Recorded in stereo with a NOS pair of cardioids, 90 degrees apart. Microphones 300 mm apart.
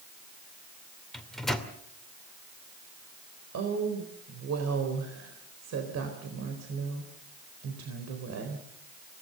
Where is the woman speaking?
60° right, 4 m.